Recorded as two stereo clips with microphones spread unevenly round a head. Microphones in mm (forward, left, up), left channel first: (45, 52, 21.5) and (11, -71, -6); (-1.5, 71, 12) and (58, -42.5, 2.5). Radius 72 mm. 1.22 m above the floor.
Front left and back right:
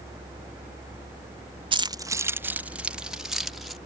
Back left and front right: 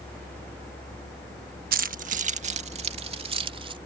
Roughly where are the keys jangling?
Ahead right.